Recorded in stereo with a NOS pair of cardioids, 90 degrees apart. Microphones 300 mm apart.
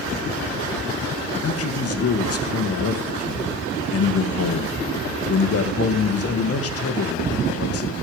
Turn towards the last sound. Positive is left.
turn(degrees=50)